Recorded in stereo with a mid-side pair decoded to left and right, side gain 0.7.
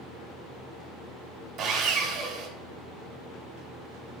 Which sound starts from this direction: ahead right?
Sawing, at 1.6 s.